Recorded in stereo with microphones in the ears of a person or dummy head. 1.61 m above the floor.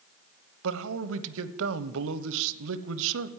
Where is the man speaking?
75° right (ahead or behind), 1.0 m.